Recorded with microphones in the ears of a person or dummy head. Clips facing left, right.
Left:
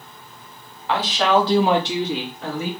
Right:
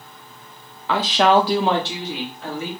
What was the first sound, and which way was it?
A woman speaking, 70° right (ahead or behind).